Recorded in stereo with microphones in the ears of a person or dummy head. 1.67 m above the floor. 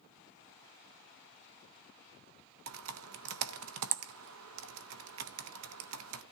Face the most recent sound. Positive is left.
turn(degrees=-80)